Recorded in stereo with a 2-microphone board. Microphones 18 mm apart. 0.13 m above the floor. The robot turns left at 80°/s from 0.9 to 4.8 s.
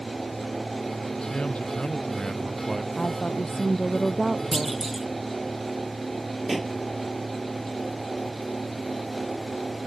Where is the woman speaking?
100° left; by 4.8 s 45° right.